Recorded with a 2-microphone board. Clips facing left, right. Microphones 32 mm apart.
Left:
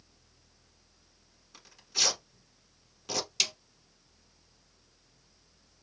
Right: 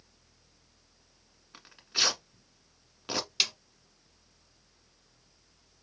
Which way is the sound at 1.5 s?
30° right (ahead or behind).